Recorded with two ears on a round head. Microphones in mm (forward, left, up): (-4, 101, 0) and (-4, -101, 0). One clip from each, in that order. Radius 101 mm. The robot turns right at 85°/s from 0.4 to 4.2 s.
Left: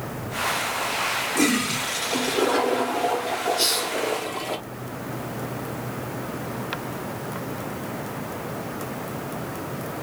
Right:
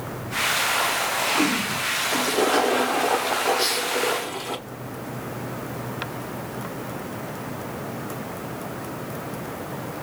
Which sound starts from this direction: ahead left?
A hiss, at 3.6 s.